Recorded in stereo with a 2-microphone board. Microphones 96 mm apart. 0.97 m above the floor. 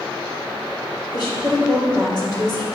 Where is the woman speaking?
50° left (ahead or behind), 3.5 m.